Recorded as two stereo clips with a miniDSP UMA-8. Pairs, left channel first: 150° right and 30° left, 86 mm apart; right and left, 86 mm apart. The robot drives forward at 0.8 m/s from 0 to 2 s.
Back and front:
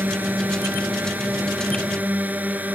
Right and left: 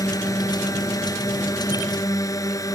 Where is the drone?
40° right.